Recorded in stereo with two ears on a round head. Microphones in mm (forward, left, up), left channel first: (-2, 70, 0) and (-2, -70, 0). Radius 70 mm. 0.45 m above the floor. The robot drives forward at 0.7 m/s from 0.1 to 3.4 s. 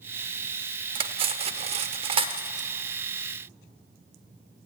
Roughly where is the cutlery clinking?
Right.